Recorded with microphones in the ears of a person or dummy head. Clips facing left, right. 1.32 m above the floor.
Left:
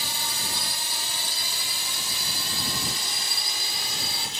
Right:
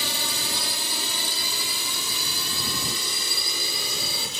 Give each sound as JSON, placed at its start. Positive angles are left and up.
{"t": 0.0, "sound": "a drone", "side_deg": -65}